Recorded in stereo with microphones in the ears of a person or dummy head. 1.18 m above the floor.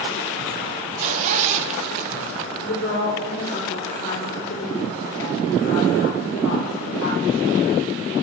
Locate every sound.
1.0 s a zipper: 40° right (ahead or behind), 0.8 m
2.6 s a woman speaking: 85° left, 3 m